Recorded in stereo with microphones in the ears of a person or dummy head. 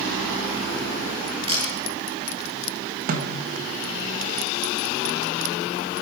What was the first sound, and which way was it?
A camera shutter, 35° right (ahead or behind).